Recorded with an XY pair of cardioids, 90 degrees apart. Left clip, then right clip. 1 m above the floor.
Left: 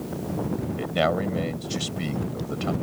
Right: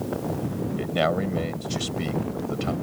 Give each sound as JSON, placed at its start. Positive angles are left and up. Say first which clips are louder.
{"t": 0.8, "sound": "a man speaking", "louder": "even", "azimuth_deg": 10}